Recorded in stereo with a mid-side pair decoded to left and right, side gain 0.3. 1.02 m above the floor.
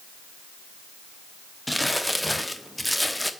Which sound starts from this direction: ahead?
Crumpling, at 1.7 s.